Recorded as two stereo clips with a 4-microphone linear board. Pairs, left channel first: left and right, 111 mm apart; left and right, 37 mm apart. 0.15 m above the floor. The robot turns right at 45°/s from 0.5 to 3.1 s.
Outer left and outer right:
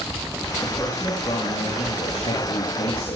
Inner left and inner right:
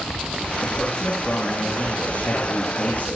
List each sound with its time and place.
0.6 s a man speaking: 10° left, 6.5 m; by 3.2 s 120° left, 6.5 m